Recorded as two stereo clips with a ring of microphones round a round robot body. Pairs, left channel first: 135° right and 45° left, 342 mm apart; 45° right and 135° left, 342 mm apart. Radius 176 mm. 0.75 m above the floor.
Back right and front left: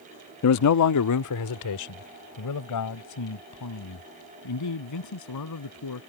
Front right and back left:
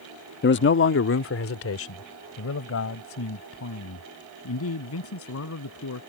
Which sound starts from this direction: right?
A man speaking, at 0.4 s.